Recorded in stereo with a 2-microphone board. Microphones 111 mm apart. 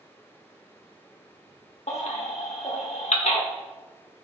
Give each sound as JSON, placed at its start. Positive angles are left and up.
{"t": 1.9, "sound": "a baby crying", "side_deg": 75, "distance_m": 1.3}